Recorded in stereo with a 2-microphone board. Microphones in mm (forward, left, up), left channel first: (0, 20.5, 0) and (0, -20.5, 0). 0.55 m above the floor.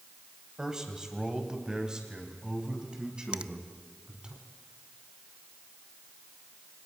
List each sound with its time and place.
0.6 s a man speaking: 10° right (ahead or behind), 3.5 m; by 4.3 s 20° right (ahead or behind), 5.5 m
3.3 s a finger snap: 20° right (ahead or behind), 0.5 m